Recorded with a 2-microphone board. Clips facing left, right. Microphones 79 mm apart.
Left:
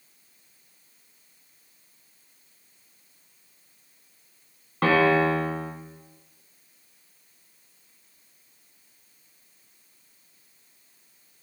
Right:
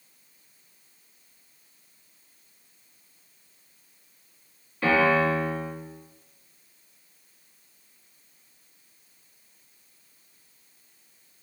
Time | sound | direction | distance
4.8 | a piano | 65° left (ahead or behind) | 1.3 m